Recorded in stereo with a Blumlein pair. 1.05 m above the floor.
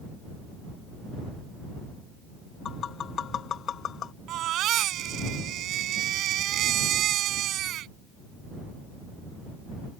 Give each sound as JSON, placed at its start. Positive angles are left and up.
{"t": 2.6, "sound": "tapping", "azimuth_deg": 25}
{"t": 4.3, "sound": "a baby crying", "azimuth_deg": -35}